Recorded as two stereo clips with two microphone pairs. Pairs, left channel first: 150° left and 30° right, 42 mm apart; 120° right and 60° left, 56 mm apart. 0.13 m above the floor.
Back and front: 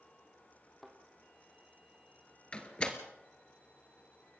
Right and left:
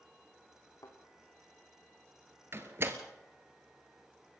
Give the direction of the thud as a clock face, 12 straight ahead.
4 o'clock.